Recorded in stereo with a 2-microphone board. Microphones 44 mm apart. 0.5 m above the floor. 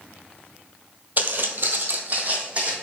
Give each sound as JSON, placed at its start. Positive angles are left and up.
{"t": 1.2, "sound": "footsteps", "side_deg": -40, "distance_m": 0.7}